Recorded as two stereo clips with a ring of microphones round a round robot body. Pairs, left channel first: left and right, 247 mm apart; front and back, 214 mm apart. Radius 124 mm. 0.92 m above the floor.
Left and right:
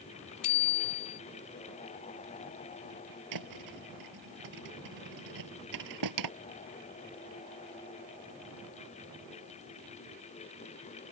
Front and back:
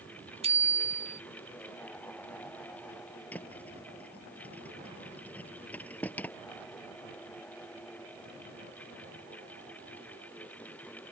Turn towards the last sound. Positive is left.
turn(degrees=-85)